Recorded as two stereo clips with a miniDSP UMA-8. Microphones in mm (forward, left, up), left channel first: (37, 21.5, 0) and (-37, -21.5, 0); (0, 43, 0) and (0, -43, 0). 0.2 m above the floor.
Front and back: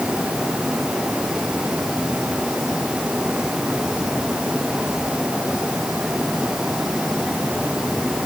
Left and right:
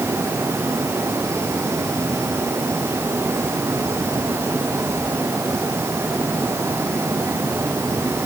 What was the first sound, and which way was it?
Only background noise.